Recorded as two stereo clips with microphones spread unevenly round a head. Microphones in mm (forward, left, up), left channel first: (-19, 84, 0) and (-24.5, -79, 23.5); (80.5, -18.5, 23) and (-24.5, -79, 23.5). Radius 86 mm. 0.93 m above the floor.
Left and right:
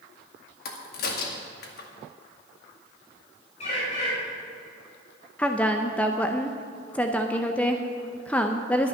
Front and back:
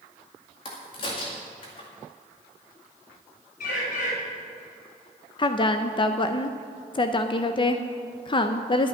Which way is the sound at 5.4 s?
20° left.